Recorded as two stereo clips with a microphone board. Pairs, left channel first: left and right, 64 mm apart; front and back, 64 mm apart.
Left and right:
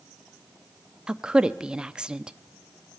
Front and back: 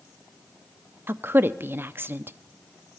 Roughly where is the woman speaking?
Behind.